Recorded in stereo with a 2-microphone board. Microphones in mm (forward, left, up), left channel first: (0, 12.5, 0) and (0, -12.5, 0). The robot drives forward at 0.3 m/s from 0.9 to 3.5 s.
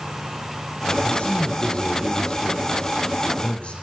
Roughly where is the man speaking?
Left.